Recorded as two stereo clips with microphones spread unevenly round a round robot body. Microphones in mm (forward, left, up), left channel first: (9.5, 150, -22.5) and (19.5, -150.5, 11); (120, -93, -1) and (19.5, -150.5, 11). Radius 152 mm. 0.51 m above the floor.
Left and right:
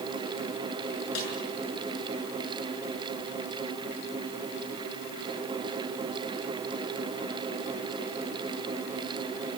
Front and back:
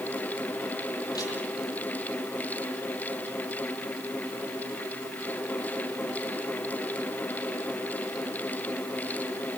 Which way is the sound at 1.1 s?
130° left.